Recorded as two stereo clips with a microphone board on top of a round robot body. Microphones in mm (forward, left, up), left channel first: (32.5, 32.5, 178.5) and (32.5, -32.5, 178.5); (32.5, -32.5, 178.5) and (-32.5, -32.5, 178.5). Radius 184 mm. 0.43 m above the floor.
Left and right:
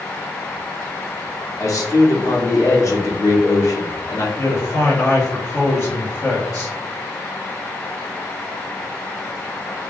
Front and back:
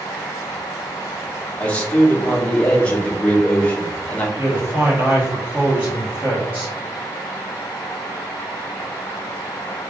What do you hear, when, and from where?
1.6 s a man speaking: 70° left, 1.8 m
4.4 s a man speaking: 120° left, 2 m